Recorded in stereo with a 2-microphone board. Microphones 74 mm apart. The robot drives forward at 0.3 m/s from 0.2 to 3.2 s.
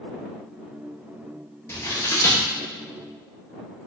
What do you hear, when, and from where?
1.7 s scissors: 40° left (ahead or behind), 1.0 m; by 2.4 s 35° left (ahead or behind), 1.1 m